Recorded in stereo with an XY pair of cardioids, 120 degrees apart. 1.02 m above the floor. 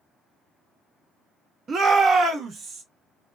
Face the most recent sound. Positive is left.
turn(degrees=-60)